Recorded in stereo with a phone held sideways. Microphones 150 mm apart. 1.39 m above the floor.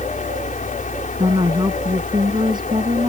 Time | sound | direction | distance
0.0 | a fan | 60° left (ahead or behind) | ?
1.2 | a woman speaking | 30° right (ahead or behind) | ?